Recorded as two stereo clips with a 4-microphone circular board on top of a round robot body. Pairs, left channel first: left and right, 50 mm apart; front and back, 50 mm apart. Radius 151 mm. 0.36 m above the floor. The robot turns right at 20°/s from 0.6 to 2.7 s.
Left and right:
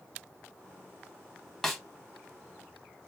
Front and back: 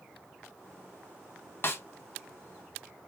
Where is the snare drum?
5° left, 1.1 m; by 1.8 s 10° left, 1.1 m.